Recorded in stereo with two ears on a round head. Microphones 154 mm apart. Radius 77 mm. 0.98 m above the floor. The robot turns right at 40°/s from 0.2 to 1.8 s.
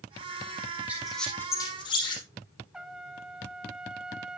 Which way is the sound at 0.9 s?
10° right (ahead or behind).